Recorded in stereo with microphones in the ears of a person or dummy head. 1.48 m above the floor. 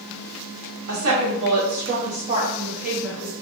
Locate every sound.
0.9 s a woman speaking: 80° right, 1.1 m; by 3.3 s centre (ahead or behind), 1.1 m